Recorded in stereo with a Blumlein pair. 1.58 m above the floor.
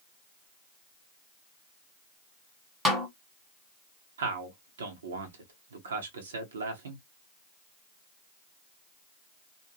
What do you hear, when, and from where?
2.9 s a snare drum: 15° right, 1.2 m
4.2 s a man speaking: 65° right, 0.9 m